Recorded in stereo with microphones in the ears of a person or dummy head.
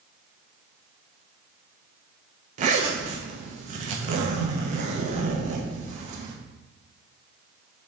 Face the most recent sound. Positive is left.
turn(degrees=-45)  # may be behind; listen again after turning